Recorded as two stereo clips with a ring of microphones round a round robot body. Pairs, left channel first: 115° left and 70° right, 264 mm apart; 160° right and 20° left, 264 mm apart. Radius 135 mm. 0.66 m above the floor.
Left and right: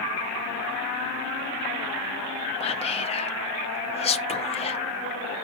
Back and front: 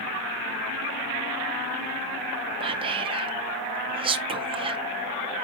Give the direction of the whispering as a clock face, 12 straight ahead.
10 o'clock.